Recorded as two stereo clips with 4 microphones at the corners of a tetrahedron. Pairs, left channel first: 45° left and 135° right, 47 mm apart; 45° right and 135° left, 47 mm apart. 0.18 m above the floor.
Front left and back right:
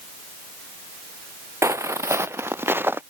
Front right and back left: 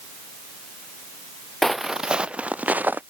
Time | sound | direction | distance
1.6 | footsteps | 130° right | ?